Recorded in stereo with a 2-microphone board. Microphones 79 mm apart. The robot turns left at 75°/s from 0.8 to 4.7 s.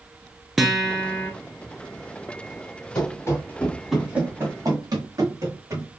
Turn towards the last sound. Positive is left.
turn(degrees=-40)  # may be behind; listen again after turning